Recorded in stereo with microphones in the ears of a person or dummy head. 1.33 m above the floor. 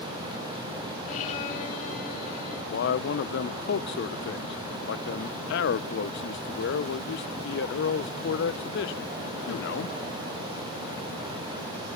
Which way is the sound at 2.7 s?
60° left (ahead or behind).